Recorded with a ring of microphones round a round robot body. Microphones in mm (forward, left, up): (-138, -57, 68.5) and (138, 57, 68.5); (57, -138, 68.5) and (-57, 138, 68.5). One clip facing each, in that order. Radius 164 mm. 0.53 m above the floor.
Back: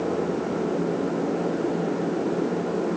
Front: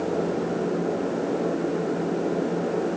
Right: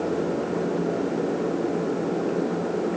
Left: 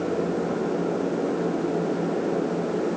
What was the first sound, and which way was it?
Only background noise.